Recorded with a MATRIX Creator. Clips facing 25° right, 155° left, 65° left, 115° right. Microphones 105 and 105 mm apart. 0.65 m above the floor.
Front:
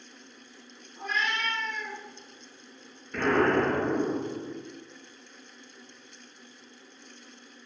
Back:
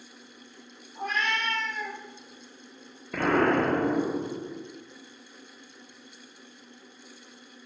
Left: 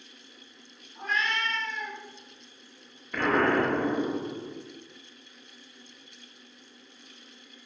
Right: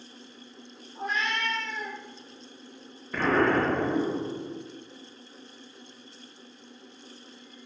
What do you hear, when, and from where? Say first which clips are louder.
0.9 s a cat meowing: back 2 dB, even; 175° right, 0.7 m
3.1 s an explosion: back 1 dB, right 1 dB; 160° left, 0.7 m